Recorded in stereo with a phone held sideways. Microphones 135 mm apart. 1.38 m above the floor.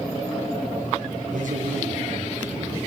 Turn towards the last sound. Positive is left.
turn(degrees=-90)